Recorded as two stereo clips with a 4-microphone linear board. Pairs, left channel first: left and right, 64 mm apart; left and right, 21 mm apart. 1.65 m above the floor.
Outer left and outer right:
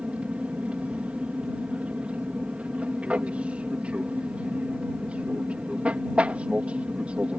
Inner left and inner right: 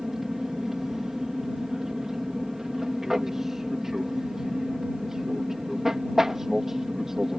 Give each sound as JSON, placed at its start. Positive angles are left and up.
{"t": 0.0, "sound": "an aircraft", "side_deg": -20}